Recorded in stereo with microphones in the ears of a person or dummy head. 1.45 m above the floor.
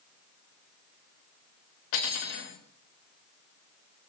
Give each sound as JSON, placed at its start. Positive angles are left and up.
{"t": 1.9, "sound": "cutlery clinking", "side_deg": 70, "distance_m": 3.5}